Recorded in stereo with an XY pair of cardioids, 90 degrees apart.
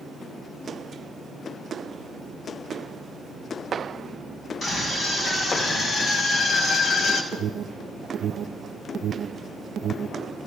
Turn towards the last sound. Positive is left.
turn(degrees=-70)